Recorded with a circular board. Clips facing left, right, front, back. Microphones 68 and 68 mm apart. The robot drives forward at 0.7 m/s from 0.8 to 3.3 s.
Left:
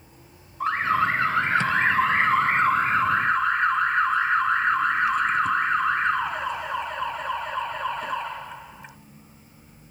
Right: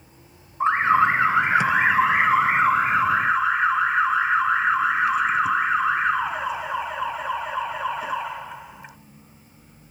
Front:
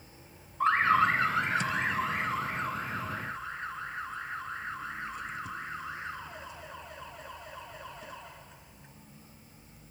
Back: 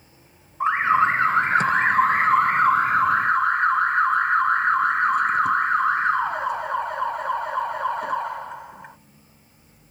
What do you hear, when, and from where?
0.6 s an alarm: 130° right; by 9.0 s 170° right